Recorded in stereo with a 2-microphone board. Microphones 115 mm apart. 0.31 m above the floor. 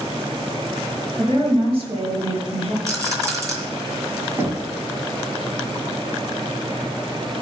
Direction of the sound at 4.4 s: 25° right (ahead or behind).